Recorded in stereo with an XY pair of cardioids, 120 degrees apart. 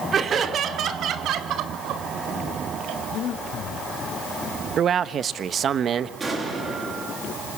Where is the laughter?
40° right, 2.5 m; by 3.0 s 75° right, 6 m.